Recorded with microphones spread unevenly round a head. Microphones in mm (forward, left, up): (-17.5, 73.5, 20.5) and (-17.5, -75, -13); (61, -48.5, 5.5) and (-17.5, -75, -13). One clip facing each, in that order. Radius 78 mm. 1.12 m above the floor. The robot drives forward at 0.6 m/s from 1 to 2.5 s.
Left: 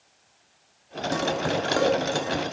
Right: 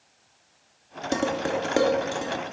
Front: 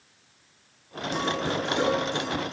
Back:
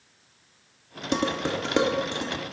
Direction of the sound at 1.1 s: 155° right.